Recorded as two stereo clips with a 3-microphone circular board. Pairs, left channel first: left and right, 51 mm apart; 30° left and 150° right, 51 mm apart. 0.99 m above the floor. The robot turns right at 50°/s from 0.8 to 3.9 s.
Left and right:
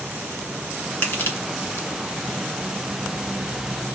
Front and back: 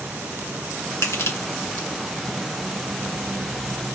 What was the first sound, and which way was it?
Crushing, 35° left.